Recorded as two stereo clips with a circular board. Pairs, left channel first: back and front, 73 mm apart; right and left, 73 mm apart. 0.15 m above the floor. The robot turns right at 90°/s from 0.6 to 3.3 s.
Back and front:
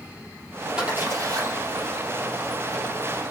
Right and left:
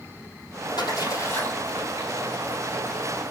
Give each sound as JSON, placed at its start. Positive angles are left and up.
{"t": 0.8, "sound": "a splash", "azimuth_deg": -80, "distance_m": 4.5}